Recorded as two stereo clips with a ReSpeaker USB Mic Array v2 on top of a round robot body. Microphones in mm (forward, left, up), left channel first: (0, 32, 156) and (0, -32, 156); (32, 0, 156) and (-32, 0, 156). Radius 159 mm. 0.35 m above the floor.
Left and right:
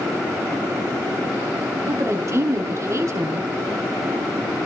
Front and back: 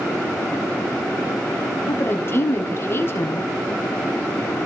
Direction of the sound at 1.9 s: 50° right.